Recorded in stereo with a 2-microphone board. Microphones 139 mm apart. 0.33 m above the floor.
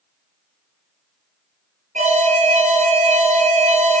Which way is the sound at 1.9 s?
60° right (ahead or behind).